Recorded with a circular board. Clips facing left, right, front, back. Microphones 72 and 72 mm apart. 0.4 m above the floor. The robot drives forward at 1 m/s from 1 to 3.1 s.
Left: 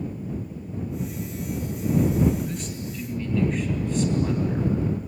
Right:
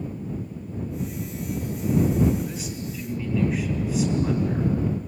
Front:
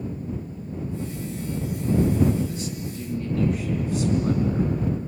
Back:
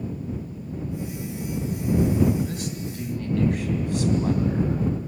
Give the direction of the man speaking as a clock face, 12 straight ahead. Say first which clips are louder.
Even, even; 6 o'clock.